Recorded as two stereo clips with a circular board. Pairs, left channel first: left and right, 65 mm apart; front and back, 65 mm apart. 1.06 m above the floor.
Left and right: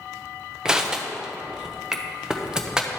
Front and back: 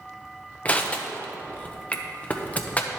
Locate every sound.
0.7 s crushing: 30° right, 0.7 m